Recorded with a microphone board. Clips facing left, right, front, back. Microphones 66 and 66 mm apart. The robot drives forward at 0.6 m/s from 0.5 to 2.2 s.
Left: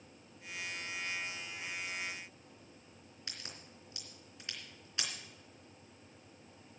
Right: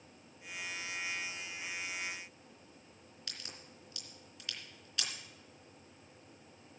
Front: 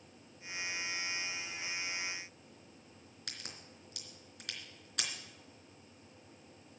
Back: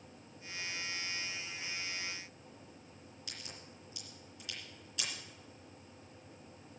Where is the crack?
25° left, 3 m.